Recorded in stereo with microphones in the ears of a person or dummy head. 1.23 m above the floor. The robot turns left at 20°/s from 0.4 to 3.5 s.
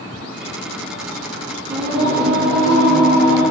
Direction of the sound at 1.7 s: 85° right.